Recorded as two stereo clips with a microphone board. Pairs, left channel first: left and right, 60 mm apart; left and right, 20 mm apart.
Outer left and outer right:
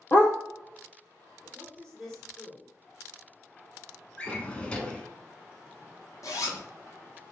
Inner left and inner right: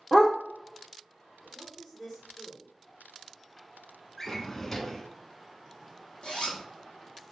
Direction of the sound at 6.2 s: 60° left (ahead or behind).